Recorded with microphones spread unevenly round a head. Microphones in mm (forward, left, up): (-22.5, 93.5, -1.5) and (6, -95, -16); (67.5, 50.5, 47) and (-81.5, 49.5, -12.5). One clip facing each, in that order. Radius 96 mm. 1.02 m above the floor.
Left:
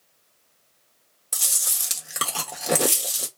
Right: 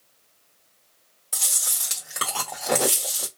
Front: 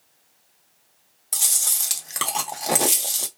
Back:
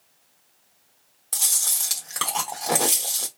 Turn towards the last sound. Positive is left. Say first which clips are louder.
# right 1 dB, front 1 dB
turn(degrees=40)